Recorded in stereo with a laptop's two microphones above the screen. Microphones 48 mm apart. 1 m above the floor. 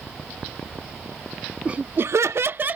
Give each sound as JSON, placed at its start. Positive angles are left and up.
{"t": 1.6, "sound": "laughter", "side_deg": -25}